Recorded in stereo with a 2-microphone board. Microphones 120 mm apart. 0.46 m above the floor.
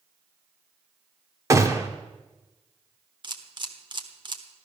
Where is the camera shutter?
40° right (ahead or behind), 1.3 m.